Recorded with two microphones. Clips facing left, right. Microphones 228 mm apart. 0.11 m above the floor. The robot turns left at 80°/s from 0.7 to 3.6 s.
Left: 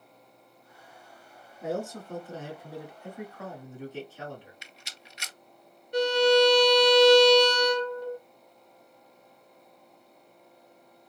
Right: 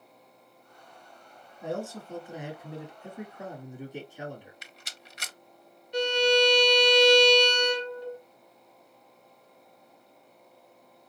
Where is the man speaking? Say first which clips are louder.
Left 2 dB; 5° left (ahead or behind), 1.3 m; by 4.5 s 15° right (ahead or behind), 1.3 m.